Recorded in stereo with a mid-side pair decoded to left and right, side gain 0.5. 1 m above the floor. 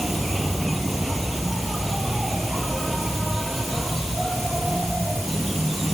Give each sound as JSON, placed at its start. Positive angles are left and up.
{"t": 0.0, "sound": "an insect", "azimuth_deg": -10}